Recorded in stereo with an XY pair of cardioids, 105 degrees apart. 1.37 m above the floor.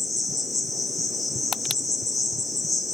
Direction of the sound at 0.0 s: 15° left.